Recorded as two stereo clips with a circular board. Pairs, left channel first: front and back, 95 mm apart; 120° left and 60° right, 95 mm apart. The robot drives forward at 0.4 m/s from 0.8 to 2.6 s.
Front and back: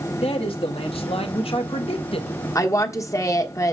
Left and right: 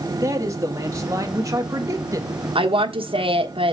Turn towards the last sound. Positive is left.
turn(degrees=-55)